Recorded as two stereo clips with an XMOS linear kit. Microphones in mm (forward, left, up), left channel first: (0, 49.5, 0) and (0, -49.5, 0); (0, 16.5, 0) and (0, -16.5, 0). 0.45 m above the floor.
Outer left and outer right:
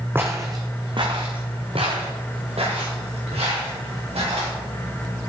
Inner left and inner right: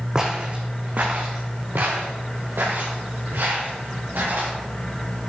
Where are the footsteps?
20° right (ahead or behind), 1.0 m; by 4.5 s 80° right, 4 m.